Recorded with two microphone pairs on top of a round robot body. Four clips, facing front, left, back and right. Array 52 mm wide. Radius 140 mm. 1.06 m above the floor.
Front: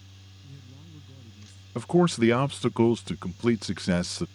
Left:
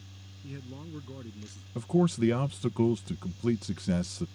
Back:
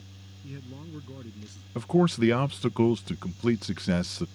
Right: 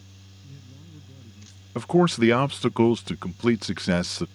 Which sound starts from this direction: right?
A man speaking, at 1.8 s.